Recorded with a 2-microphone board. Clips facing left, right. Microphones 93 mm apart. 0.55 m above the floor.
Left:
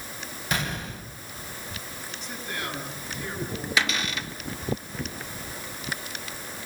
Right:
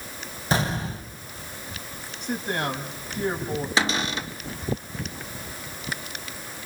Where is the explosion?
30° right (ahead or behind), 2.5 m.